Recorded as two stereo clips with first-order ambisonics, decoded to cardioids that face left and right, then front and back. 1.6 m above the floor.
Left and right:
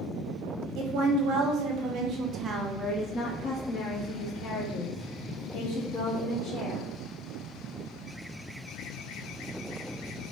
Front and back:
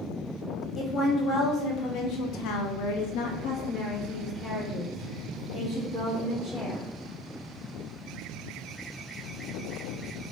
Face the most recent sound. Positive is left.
turn(degrees=90)